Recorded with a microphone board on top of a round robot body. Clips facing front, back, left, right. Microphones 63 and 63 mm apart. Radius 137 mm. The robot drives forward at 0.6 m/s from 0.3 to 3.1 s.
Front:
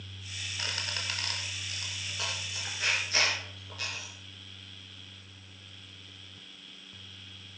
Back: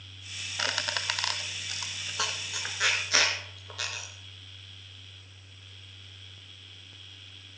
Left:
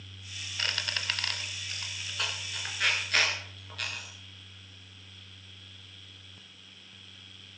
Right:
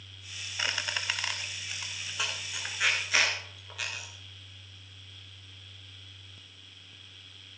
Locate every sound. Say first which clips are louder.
0.6 s a squeak: back 6 dB, right 1 dB; 170° right, 0.6 m; by 4.1 s 175° right, 2 m